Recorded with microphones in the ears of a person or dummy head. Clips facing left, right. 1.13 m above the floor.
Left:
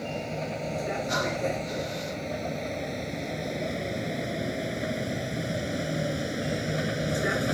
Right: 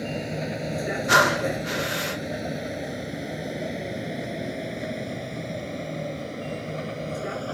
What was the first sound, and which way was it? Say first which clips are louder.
A vehicle: right 3 dB; 25° right (ahead or behind).